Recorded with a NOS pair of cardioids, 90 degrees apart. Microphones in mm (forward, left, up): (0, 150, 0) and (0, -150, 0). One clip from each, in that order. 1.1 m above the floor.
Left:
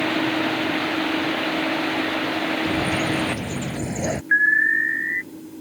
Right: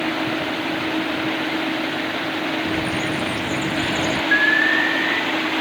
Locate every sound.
2.6 s a bird: 15° left
4.3 s an alarm: 5° left